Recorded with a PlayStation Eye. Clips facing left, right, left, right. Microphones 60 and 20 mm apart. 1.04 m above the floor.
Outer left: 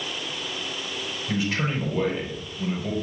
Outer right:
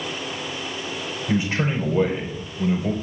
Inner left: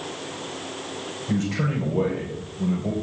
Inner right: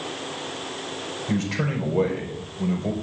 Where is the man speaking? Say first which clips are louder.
Outer right 3 dB, inner left 1 dB; 25° right (ahead or behind), 4.5 m.